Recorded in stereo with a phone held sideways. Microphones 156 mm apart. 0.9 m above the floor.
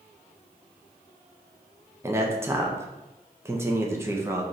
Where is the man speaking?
15° right (ahead or behind), 0.5 m.